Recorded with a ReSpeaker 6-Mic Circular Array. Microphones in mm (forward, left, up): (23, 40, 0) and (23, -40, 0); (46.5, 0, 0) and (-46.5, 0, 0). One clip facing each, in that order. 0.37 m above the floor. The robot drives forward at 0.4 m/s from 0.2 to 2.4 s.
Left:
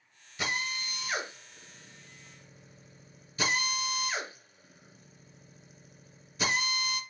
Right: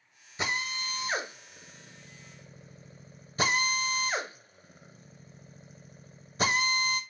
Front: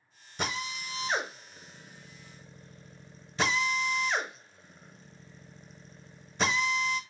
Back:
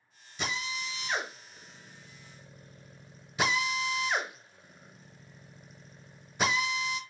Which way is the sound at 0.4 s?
30° right.